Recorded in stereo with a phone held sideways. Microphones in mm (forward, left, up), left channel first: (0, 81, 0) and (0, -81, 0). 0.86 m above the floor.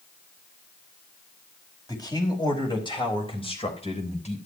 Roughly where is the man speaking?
Left.